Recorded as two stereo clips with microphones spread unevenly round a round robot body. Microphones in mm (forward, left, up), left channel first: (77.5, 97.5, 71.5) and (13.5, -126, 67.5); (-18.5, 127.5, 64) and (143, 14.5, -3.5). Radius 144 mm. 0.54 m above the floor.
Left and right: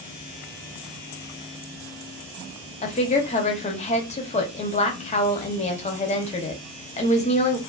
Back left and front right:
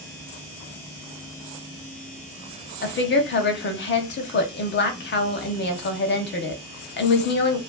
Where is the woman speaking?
120° left, 0.7 m.